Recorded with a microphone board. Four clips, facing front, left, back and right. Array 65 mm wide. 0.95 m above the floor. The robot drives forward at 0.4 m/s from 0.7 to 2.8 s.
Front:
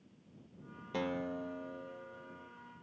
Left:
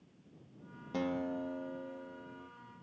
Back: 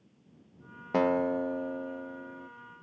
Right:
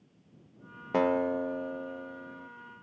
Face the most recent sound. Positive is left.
turn(degrees=-160)